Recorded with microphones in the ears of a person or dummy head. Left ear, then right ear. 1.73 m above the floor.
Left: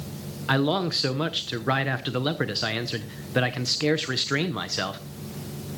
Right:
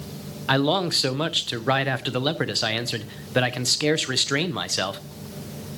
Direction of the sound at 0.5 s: 15° right (ahead or behind).